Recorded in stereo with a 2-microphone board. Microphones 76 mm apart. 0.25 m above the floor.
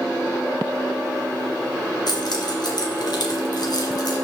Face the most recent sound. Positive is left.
turn(degrees=65)  # may be behind; listen again after turning